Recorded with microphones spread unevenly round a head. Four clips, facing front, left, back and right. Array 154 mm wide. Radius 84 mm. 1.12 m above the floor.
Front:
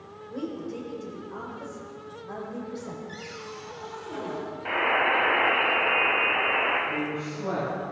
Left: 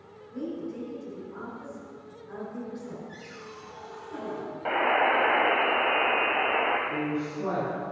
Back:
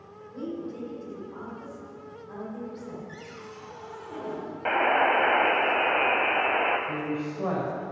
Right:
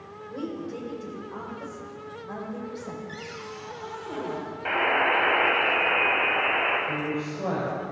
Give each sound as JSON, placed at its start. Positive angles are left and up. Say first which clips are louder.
{"t": 0.3, "sound": "a woman speaking", "louder": "right 1 dB, front 1 dB", "azimuth_deg": -45, "distance_m": 4.5}
{"t": 3.1, "sound": "a cupboard door", "louder": "right 5 dB, front 3 dB", "azimuth_deg": -70, "distance_m": 3.0}
{"t": 4.7, "sound": "a buzzer", "louder": "even, back 3 dB", "azimuth_deg": 155, "distance_m": 1.7}
{"t": 6.9, "sound": "a woman speaking", "louder": "even, even", "azimuth_deg": -140, "distance_m": 5.0}